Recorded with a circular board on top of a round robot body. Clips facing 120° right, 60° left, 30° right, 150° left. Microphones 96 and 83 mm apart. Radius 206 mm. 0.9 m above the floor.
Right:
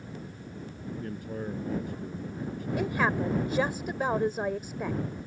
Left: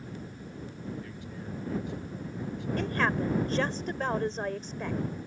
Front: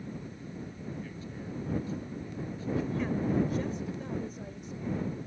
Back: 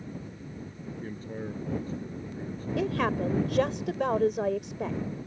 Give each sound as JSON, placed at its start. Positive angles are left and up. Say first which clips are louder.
{"t": 1.0, "sound": "a man speaking", "louder": "right 6 dB, back 4 dB", "azimuth_deg": -165}
{"t": 2.8, "sound": "a woman speaking", "louder": "right 1 dB, back 5 dB", "azimuth_deg": 160}